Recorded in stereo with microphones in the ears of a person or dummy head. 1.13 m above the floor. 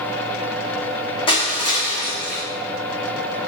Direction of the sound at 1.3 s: 35° left (ahead or behind).